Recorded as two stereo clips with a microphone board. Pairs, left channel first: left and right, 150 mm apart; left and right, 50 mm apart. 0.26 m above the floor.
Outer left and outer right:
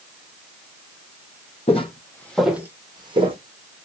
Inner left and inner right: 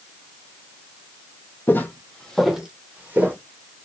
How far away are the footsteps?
About 0.7 m.